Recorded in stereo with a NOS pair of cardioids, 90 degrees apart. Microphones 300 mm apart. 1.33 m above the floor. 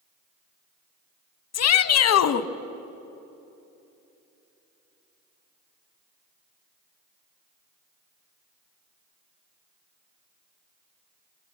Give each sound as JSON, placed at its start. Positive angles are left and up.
{"t": 1.5, "sound": "a shout", "azimuth_deg": 60, "distance_m": 1.4}